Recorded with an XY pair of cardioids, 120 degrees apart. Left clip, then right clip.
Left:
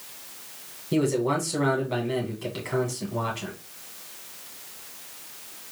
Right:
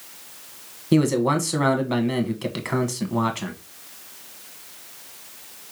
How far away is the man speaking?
About 1.5 m.